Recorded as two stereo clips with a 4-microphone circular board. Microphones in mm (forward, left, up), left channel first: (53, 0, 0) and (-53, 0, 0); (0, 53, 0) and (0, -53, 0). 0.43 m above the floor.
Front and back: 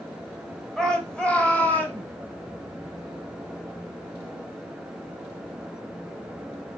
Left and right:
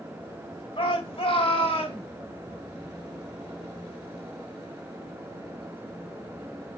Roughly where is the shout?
Left.